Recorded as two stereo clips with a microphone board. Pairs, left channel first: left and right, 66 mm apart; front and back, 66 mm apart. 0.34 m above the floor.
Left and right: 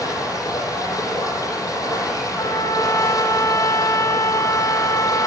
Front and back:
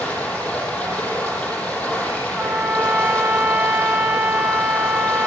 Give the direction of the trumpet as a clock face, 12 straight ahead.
8 o'clock.